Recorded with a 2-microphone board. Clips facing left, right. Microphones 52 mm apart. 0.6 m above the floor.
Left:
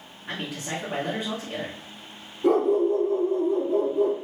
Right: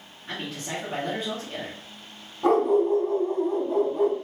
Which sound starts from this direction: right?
A dog barking, at 2.4 s.